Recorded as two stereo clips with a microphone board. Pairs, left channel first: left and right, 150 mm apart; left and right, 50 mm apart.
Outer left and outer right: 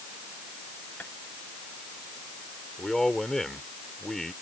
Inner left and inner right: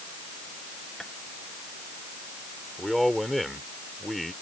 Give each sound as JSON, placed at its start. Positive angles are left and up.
{"t": 1.0, "sound": "tapping", "side_deg": 10}
{"t": 2.8, "sound": "a man speaking", "side_deg": 0}